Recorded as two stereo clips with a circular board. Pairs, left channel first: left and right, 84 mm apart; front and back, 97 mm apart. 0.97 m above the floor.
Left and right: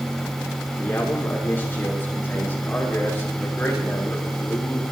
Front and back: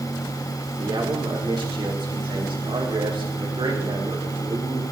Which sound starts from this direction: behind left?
A man speaking, at 0.8 s.